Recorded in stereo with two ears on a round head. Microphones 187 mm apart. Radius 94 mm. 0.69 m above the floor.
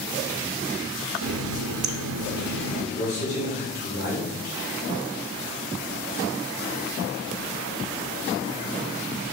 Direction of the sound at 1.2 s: 70° right (ahead or behind).